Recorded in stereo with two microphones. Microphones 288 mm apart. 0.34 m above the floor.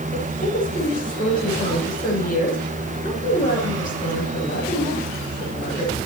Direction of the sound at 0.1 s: 30° left (ahead or behind).